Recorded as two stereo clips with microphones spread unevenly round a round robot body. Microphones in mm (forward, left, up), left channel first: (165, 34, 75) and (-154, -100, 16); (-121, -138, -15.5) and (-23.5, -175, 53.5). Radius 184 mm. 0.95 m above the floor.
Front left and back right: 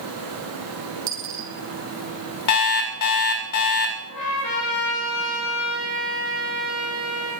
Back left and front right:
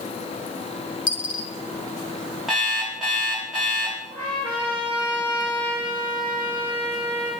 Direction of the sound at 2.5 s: 70° left.